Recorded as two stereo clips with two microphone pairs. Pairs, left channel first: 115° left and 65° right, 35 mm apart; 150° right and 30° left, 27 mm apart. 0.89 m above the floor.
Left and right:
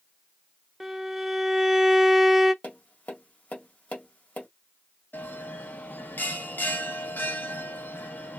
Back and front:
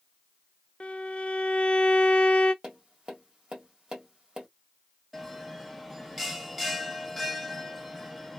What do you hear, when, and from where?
0.8 s a violin: 150° right, 0.6 m
2.6 s tapping: 80° left, 1.8 m
5.1 s a bell: 120° left, 0.8 m